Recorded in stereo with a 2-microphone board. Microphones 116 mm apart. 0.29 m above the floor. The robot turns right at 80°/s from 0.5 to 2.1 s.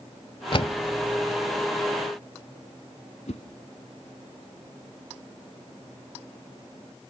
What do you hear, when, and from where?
0.5 s a door slam: 50° left (ahead or behind), 1.1 m; by 0.8 s 45° left (ahead or behind), 1.1 m
3.3 s a whoosh: 75° left (ahead or behind), 1.1 m